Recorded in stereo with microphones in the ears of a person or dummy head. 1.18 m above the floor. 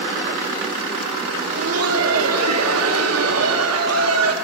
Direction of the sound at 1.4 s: 80° right.